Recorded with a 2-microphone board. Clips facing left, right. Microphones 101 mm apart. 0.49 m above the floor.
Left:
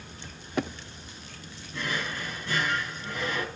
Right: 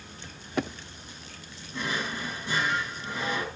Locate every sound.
1.7 s a drawer: 20° right (ahead or behind), 3.5 m